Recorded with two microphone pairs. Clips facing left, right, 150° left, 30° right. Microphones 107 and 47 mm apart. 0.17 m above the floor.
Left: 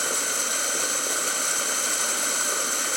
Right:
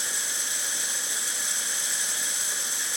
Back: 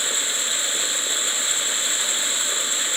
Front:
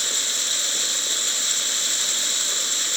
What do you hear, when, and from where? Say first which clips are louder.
0.0 s running water: left 8 dB, back 2 dB; 85° left, 0.9 m